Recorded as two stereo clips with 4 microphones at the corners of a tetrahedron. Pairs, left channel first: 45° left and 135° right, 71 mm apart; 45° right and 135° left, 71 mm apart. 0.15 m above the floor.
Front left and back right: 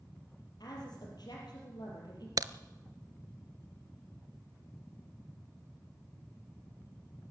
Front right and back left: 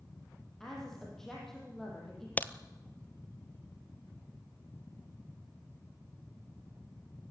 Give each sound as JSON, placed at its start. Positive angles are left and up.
{"t": 0.6, "sound": "a woman speaking", "azimuth_deg": 40, "distance_m": 4.5}
{"t": 2.4, "sound": "a crack", "azimuth_deg": -110, "distance_m": 0.6}